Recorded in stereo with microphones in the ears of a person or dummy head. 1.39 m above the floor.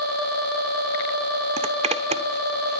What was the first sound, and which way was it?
A zipper, 30° right (ahead or behind).